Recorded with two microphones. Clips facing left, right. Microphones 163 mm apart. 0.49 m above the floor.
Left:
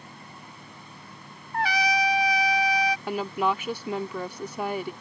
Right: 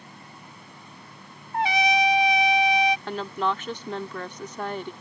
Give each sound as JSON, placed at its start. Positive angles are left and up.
{"t": 1.5, "sound": "a trumpet", "side_deg": -25}
{"t": 3.1, "sound": "a woman speaking", "side_deg": 10}